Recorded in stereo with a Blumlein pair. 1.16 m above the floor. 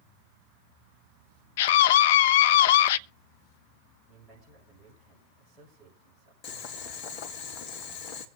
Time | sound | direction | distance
1.6 | a scream | 55° left | 0.7 m
4.1 | a man speaking | 15° right | 6 m
6.4 | boiling | 35° left | 2 m